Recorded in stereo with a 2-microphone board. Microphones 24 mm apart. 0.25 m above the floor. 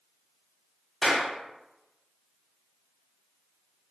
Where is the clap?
5° left (ahead or behind), 0.9 m.